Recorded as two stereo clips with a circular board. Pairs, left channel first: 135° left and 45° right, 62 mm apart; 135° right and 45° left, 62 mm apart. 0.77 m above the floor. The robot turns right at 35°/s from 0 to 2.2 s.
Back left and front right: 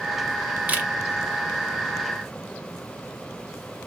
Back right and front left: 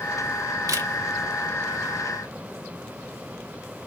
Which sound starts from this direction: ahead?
A camera shutter, at 0.7 s.